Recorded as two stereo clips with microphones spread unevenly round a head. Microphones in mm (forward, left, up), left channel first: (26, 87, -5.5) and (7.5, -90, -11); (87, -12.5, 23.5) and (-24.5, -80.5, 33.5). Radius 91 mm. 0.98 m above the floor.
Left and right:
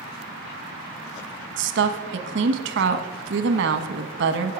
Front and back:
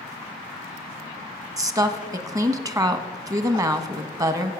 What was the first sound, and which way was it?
A woman speaking, 85° right.